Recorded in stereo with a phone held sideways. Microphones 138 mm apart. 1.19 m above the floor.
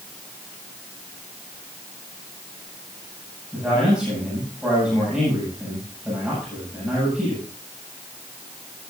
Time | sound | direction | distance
3.5 | a man speaking | 5° right (ahead or behind) | 8.5 m